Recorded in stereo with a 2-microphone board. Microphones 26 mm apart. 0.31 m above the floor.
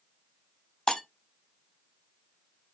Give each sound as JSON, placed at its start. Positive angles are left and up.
{"t": 0.9, "sound": "breaking glass", "side_deg": 30, "distance_m": 0.7}